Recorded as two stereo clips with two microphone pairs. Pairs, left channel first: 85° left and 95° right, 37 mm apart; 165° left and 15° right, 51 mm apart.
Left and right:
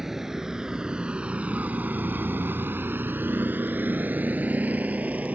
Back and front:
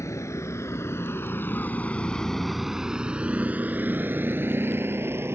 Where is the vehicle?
175° right; by 5.4 s 50° right.